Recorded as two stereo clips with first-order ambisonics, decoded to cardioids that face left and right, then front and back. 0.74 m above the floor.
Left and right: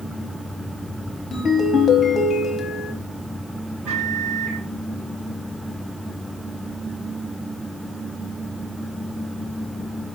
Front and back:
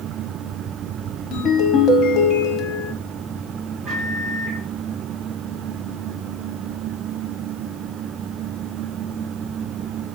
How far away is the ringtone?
About 0.7 m.